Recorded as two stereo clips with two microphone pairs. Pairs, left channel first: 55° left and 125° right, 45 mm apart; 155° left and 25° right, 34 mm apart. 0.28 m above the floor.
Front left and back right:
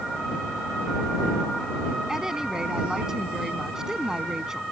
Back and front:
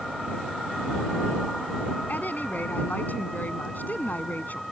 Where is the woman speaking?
160° left.